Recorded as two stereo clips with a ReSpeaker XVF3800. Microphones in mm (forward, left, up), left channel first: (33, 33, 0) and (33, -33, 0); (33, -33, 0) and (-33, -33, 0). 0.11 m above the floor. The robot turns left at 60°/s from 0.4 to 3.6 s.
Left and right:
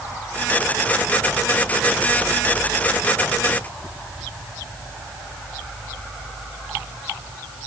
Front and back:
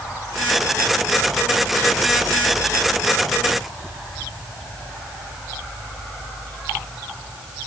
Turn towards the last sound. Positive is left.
No sound to turn to.